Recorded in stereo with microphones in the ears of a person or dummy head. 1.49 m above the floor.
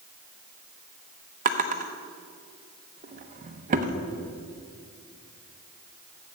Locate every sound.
1.4 s a drawer: 40° right (ahead or behind), 0.7 m